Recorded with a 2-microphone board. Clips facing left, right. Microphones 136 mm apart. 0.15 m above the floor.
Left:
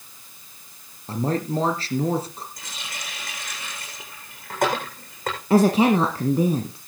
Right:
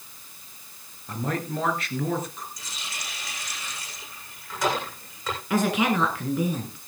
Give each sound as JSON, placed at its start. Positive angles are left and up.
{"t": 1.1, "sound": "a man speaking", "side_deg": 30, "distance_m": 2.5}
{"t": 2.6, "sound": "a running tap", "side_deg": 55, "distance_m": 8.0}
{"t": 5.5, "sound": "a woman speaking", "side_deg": 35, "distance_m": 1.6}